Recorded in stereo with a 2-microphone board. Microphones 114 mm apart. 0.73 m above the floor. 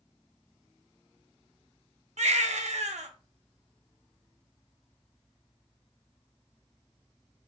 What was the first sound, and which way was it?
A baby crying, 80° right.